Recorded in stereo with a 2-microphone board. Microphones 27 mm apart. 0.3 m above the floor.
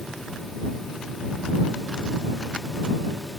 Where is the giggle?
I don't hear a giggle.